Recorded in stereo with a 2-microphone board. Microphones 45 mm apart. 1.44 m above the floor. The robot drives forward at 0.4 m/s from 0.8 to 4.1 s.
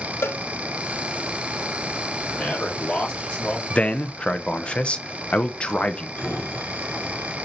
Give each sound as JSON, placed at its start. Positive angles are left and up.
{"t": 0.2, "sound": "a cowbell", "side_deg": 60, "distance_m": 0.7}
{"t": 2.3, "sound": "a man speaking", "side_deg": 25, "distance_m": 3.5}
{"t": 3.7, "sound": "a man speaking", "side_deg": 30, "distance_m": 0.9}
{"t": 6.2, "sound": "a sliding door", "side_deg": 25, "distance_m": 4.5}